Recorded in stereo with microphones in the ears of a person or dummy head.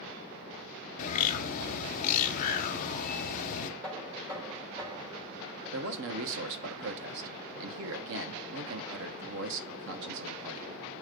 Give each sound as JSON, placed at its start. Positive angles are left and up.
{"t": 1.0, "sound": "a bird", "side_deg": 45, "distance_m": 0.8}
{"t": 3.8, "sound": "knocking", "side_deg": -20, "distance_m": 4.0}
{"t": 5.7, "sound": "a man speaking", "side_deg": -70, "distance_m": 1.1}